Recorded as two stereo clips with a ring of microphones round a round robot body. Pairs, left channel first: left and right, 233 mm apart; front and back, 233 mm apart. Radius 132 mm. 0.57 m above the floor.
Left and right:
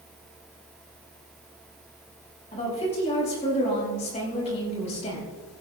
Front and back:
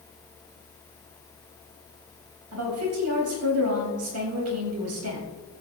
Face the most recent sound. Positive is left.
turn(degrees=155)